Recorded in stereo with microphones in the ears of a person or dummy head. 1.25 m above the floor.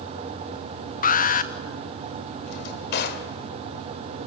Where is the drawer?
60° left (ahead or behind), 2.5 m.